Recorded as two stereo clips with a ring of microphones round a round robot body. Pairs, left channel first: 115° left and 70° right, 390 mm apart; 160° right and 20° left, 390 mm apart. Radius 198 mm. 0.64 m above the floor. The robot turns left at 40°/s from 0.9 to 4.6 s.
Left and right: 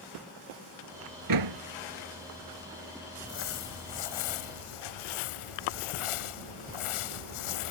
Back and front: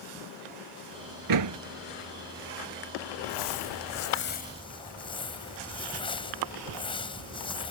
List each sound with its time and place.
1.3 s a door slam: 20° right; by 1.6 s 35° right
3.2 s crumpling: straight behind; by 7.7 s 125° left